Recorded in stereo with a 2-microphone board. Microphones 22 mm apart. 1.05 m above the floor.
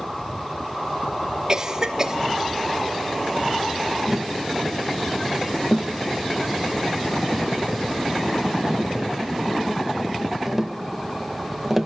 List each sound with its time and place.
1.5 s a cough: 25° right (ahead or behind), 2.5 m
4.1 s tapping: 10° right (ahead or behind), 0.9 m